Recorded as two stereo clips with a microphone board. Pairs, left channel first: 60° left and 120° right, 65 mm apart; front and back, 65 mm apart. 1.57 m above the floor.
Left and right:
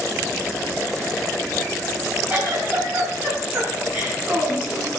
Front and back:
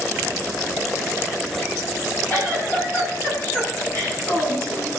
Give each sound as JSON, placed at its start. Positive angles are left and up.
{"t": 2.3, "sound": "a giggle", "azimuth_deg": -55, "distance_m": 5.0}